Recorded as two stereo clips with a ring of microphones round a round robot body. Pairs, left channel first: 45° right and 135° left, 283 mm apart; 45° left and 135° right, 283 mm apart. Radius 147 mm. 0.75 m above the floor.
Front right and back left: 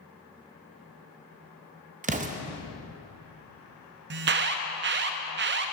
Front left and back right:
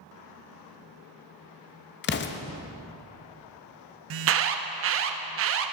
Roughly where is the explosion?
Left.